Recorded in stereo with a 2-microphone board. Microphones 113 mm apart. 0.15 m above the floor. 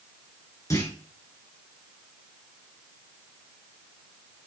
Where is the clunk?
30° left (ahead or behind), 2.5 m.